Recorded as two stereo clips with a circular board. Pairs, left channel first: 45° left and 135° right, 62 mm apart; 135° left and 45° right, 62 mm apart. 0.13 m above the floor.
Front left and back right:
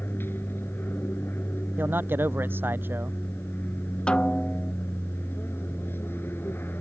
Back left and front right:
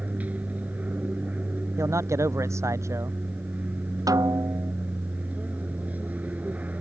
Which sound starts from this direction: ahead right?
A snare drum, at 4.1 s.